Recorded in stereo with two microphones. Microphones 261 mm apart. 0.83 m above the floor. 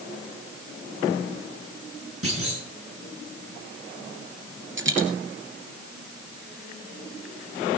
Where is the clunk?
55° right (ahead or behind), 9.5 m.